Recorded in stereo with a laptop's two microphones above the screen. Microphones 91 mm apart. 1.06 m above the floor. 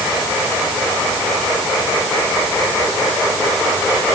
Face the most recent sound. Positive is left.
No sound to turn to.